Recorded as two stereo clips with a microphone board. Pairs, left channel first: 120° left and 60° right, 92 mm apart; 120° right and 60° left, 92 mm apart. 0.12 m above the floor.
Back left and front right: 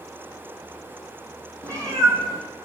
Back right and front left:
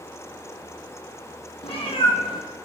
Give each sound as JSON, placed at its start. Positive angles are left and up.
{"t": 1.6, "sound": "a cat meowing", "azimuth_deg": -115, "distance_m": 0.6}